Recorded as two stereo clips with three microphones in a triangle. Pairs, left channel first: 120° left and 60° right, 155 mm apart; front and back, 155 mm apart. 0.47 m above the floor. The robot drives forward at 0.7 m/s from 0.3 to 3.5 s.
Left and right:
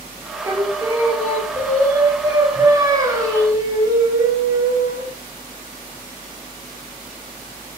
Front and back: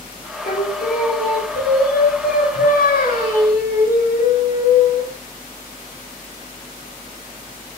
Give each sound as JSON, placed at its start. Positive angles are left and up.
{"t": 0.4, "sound": "singing", "azimuth_deg": 5, "distance_m": 7.0}